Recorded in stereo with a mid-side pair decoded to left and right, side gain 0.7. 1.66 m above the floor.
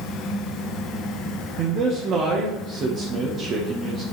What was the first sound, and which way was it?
A fan, 30° left.